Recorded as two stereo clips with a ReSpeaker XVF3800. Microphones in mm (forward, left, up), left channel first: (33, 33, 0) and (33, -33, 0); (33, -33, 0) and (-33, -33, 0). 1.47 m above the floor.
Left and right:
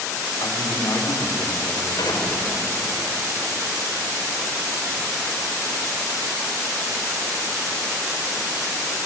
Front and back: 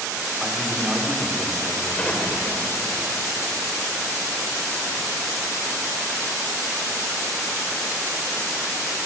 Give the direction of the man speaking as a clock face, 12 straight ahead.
9 o'clock.